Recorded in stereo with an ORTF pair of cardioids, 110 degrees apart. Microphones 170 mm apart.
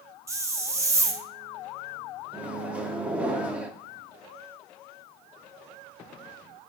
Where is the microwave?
5° right, 0.6 m.